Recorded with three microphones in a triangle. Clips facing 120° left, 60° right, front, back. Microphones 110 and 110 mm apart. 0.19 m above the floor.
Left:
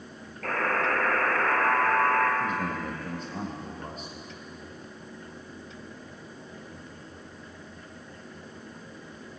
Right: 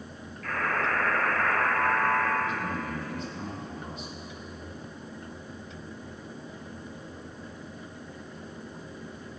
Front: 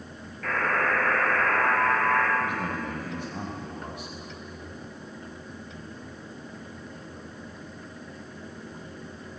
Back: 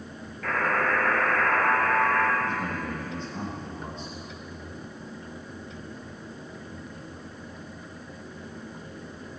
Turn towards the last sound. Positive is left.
turn(degrees=75)